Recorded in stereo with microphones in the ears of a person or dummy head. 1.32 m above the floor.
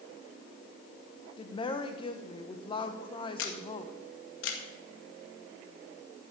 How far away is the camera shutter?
About 1.9 m.